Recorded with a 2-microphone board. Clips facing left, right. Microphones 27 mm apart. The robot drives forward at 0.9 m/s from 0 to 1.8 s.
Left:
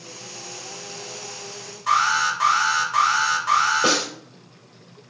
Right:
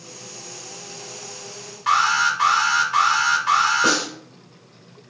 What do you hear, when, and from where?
1.9 s an alarm: 65° right (ahead or behind), 2 m
3.8 s a snare drum: 25° left (ahead or behind), 1.7 m